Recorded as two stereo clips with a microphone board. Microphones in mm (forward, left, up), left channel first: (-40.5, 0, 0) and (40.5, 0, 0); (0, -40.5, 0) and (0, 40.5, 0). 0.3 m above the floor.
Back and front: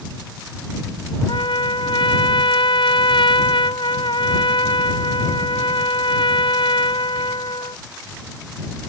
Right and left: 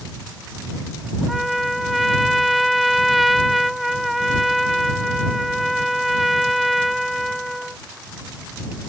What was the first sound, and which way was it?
A trumpet, straight behind.